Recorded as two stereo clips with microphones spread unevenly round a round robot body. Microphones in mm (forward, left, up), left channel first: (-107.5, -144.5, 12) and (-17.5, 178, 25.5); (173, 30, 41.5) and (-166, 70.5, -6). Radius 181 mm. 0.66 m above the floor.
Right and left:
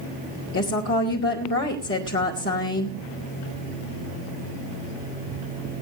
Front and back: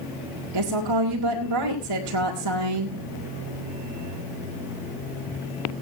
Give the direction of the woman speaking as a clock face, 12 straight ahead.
5 o'clock.